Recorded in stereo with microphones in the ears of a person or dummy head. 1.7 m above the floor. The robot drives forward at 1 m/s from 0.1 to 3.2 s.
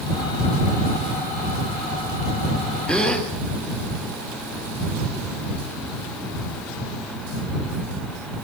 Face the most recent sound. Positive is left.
turn(degrees=5)  # may be behind; listen again after turning